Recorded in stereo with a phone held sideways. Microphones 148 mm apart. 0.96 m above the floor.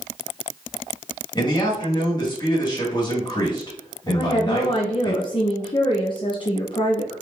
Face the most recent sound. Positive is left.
turn(degrees=35)  # may be behind; listen again after turning